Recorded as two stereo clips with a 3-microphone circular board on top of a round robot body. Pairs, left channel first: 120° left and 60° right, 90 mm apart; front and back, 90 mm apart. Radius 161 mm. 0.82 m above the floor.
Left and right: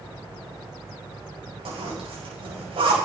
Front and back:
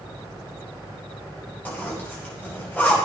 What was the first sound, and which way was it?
A zipper, 70° right.